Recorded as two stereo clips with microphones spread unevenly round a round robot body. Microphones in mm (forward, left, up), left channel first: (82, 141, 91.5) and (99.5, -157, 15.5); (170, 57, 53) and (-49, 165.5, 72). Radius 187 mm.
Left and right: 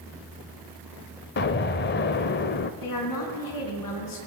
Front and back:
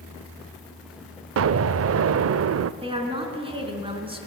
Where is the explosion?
155° left, 0.5 m.